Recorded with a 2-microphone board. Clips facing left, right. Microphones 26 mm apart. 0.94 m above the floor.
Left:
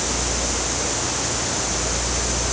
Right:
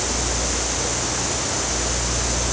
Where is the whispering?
I don't hear whispering.